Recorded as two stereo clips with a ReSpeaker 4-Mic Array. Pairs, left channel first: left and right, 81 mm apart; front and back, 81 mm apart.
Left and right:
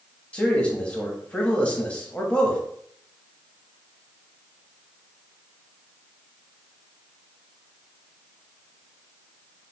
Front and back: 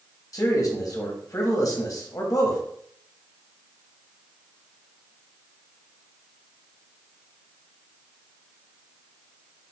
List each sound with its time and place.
0.3 s a man speaking: 20° left, 1.2 m